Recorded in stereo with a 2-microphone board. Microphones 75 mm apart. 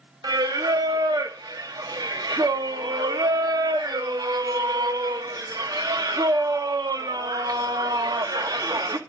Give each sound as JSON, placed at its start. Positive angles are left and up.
{"t": 0.2, "sound": "singing", "side_deg": -65, "distance_m": 0.7}